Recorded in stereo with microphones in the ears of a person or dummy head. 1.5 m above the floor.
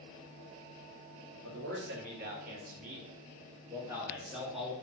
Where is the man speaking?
65° right (ahead or behind), 1.6 m; by 4.7 s 5° left (ahead or behind), 1.5 m.